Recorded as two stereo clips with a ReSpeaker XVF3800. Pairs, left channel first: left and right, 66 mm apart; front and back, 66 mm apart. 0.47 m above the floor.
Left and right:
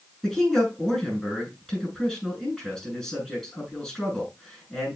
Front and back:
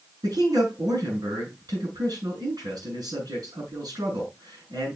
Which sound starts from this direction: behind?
A man speaking, at 0.2 s.